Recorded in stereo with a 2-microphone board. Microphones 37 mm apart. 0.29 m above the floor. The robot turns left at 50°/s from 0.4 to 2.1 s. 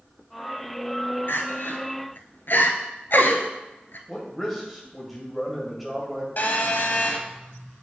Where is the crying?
70° left (ahead or behind), 0.9 m; by 4.0 s 65° left (ahead or behind), 0.9 m.